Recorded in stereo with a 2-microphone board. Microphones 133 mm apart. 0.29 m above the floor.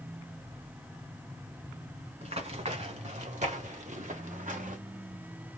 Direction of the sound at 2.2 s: 55° right (ahead or behind).